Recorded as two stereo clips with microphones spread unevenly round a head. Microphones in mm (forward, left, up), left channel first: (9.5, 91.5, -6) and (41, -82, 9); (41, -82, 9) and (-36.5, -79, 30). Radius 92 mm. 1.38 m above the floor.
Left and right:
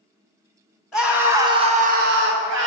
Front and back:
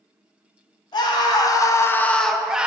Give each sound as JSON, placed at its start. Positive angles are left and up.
{"t": 0.9, "sound": "a scream", "azimuth_deg": 10, "distance_m": 1.2}